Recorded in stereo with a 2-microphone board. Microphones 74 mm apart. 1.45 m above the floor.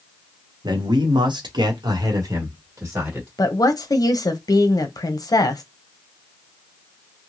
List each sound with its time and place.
0.6 s a man speaking: 65° right (ahead or behind), 0.9 m; by 3.3 s 35° right (ahead or behind), 1.4 m
3.4 s a woman speaking: 55° left (ahead or behind), 0.7 m